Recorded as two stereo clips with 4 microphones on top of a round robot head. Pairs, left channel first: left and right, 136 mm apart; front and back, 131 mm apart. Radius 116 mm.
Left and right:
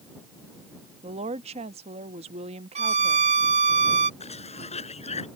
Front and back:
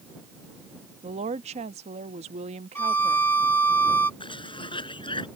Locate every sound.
1.0 s a woman speaking: 135° right
2.8 s a violin: 80° right
4.2 s a cough: 50° left